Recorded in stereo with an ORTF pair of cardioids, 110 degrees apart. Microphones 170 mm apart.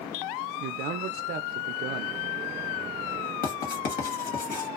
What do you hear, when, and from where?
0.6 s a man speaking: 70° right, 0.5 m
3.4 s writing: 60° left, 1.3 m